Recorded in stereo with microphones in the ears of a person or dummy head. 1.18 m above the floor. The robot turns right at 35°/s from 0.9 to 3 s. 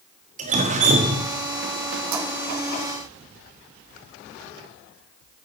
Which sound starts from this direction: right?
Dripping, at 0.4 s.